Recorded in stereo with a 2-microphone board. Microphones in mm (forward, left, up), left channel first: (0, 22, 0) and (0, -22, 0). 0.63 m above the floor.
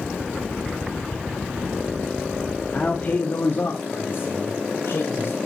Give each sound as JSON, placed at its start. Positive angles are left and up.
{"t": 2.7, "sound": "a man speaking", "side_deg": 20, "distance_m": 0.9}